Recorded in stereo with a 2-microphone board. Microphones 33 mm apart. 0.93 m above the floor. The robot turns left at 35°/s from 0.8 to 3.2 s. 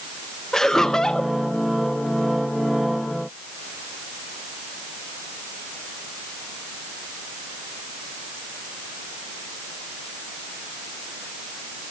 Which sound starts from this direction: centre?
Laughter, at 0.5 s.